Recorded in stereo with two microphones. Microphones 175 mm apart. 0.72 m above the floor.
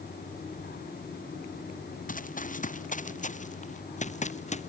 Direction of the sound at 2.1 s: 50° left (ahead or behind).